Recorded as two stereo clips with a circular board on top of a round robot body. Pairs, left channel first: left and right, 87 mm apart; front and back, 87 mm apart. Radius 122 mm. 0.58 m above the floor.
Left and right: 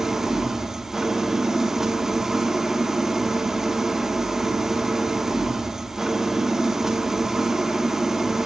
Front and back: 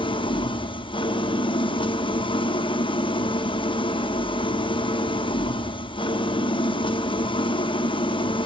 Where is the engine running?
5° right, 1.4 m.